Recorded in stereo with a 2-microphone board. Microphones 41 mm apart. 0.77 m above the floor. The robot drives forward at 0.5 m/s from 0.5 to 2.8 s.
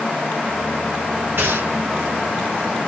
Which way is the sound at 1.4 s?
65° right (ahead or behind).